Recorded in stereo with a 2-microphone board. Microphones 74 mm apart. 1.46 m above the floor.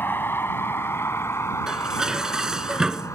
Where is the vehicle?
25° left (ahead or behind); by 3.2 s 40° left (ahead or behind).